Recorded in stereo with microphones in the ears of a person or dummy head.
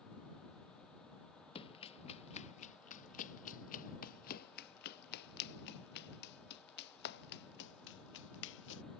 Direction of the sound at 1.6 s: 30° left (ahead or behind).